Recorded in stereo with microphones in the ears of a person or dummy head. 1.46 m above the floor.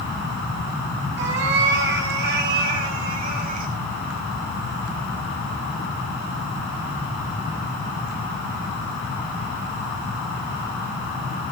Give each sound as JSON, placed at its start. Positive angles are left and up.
{"t": 1.2, "sound": "a cat meowing", "side_deg": -70, "distance_m": 7.5}